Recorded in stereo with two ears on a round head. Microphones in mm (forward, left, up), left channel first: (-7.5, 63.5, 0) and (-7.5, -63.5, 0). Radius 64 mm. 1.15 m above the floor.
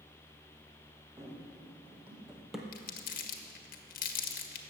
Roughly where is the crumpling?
Left.